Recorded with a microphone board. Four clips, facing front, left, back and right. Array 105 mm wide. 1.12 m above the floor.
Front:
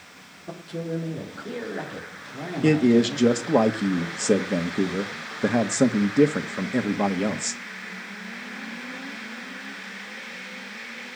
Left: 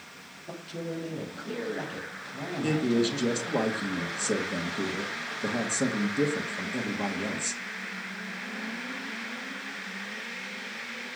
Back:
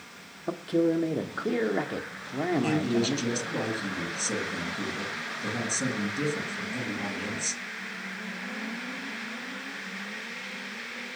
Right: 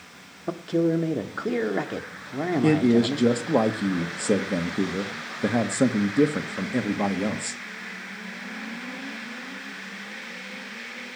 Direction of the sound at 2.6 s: 25° right.